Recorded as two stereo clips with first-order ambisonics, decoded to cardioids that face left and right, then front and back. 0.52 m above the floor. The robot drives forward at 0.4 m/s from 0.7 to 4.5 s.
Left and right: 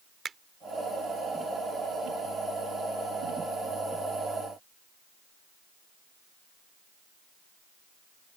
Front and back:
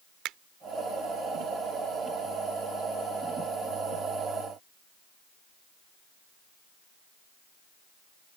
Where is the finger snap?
155° right.